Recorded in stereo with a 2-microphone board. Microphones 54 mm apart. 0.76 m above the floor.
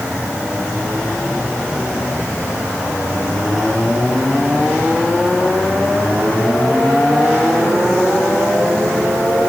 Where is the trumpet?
No trumpet in this recording.